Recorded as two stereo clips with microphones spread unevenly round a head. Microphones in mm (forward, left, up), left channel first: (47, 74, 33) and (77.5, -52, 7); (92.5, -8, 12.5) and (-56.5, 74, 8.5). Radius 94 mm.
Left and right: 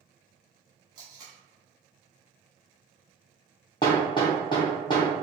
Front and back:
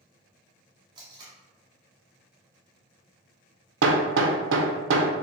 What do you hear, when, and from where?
0.9 s tape being pulled: 150° right, 1.0 m
3.8 s hammering: 165° left, 0.6 m